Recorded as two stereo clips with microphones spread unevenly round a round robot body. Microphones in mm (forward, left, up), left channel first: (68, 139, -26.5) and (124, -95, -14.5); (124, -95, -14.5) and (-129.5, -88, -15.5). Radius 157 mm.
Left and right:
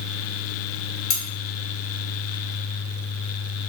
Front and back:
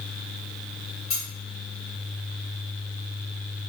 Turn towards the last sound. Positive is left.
turn(degrees=70)